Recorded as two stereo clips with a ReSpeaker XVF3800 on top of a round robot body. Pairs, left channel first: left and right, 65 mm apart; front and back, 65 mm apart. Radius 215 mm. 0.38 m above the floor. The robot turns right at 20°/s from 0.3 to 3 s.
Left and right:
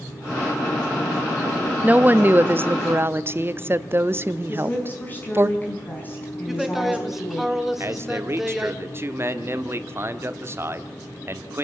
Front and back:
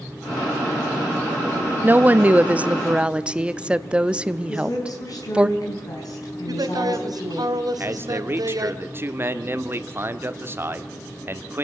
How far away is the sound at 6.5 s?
About 2.5 m.